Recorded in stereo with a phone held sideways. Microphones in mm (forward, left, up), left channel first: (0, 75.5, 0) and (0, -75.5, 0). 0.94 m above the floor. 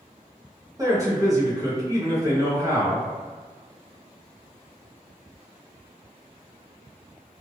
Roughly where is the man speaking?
Right.